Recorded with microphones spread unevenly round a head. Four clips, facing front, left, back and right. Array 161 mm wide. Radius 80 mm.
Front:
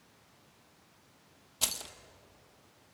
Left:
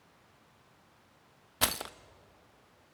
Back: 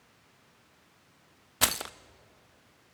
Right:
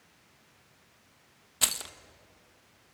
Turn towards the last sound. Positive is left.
turn(degrees=155)